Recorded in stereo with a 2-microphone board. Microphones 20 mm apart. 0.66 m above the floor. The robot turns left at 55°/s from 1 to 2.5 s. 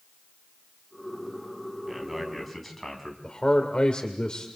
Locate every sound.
1.9 s a man speaking: 155° right, 4 m; by 3.1 s 170° left, 4 m
3.2 s a man speaking: 45° left (ahead or behind), 1.9 m